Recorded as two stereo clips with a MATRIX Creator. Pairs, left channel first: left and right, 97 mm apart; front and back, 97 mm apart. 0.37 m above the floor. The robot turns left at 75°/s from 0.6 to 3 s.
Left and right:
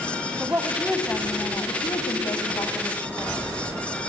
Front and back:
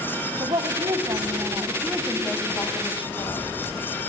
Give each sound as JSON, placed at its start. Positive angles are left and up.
{"t": 0.4, "sound": "a woman speaking", "azimuth_deg": -155, "distance_m": 2.0}